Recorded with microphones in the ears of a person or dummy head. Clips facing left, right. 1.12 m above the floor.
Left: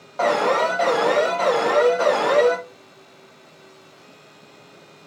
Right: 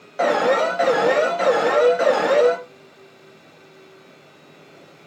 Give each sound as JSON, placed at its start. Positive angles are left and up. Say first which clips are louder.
{"t": 0.2, "sound": "an alarm", "louder": "right 2 dB", "side_deg": -20, "distance_m": 0.6}